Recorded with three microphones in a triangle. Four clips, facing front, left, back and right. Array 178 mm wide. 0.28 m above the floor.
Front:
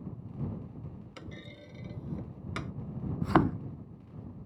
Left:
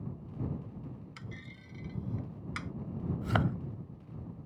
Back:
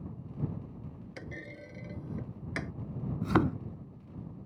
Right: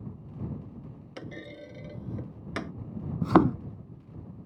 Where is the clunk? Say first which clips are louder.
Right 8 dB, back 5 dB; 105° right.